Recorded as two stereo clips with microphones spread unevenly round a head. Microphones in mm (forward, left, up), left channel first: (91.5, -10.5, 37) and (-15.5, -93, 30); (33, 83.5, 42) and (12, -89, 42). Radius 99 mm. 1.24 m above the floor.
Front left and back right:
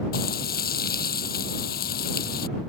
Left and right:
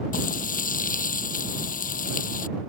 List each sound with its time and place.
0.1 s frying: 40° left